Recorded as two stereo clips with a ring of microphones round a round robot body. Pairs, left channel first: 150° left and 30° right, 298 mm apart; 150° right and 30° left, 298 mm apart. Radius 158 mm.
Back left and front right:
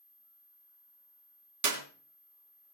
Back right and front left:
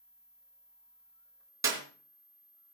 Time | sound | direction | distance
1.6 | a clap | 50° right | 3.5 m